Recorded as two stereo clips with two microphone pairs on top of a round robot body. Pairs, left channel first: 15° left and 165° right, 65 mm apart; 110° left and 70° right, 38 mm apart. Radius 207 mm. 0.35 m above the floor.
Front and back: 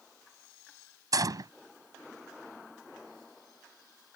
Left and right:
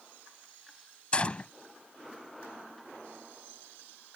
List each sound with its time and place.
1.1 s a gunshot: 175° left